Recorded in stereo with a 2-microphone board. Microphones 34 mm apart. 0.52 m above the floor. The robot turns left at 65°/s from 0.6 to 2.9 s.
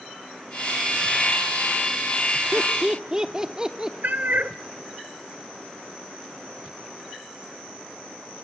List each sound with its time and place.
2.5 s laughter: 10° right (ahead or behind), 1.1 m; by 3.9 s 20° right (ahead or behind), 1.1 m
4.0 s a cat meowing: 70° right (ahead or behind), 0.9 m